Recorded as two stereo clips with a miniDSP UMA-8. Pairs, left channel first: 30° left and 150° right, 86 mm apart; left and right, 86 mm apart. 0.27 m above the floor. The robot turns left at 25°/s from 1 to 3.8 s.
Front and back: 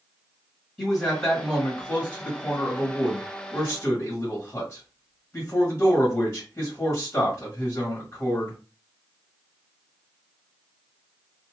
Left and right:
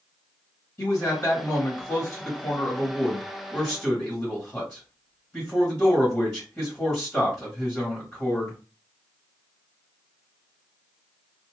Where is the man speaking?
105° left, 1.4 m; by 8.6 s 35° left, 1.4 m.